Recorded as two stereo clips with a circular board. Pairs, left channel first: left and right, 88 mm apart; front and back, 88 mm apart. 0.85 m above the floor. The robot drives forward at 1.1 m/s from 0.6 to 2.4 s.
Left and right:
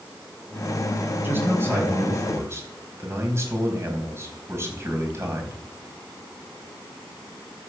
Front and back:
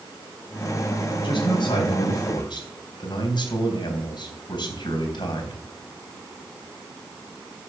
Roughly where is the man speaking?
Ahead right.